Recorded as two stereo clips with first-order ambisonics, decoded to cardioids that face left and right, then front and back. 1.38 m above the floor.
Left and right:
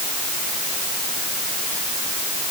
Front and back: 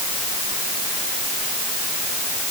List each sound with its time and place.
Only background noise.